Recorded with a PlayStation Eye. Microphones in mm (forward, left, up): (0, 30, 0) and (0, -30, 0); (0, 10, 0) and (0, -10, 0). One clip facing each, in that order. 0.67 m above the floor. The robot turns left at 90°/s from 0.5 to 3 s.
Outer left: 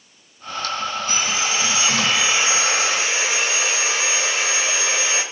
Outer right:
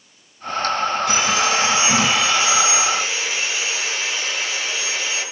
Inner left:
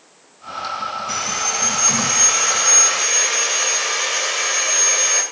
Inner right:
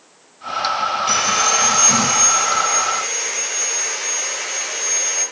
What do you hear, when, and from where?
1.1 s sawing: 80° right, 2.5 m; by 5.2 s 105° left, 2.5 m